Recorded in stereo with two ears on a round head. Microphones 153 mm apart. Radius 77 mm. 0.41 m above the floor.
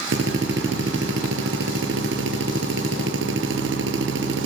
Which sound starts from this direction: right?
A drill, at 0.1 s.